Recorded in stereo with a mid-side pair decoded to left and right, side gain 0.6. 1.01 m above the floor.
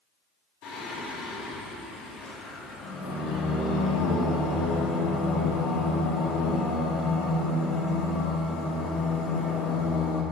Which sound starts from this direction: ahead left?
Singing, at 0.6 s.